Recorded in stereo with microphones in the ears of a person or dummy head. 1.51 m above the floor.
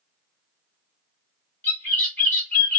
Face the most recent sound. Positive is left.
turn(degrees=10)  # may be behind; listen again after turning